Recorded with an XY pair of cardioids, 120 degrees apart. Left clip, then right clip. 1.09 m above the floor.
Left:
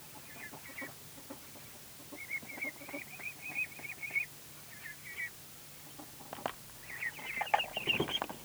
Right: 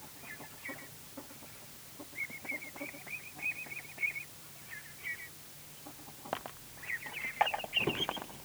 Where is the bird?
No bird in this recording.